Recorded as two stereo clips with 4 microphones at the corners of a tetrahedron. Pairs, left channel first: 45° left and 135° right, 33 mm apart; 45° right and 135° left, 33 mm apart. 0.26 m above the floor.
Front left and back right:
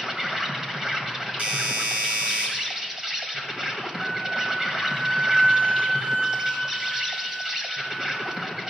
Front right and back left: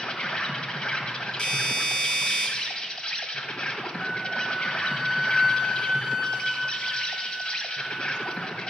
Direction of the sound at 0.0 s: 70° right.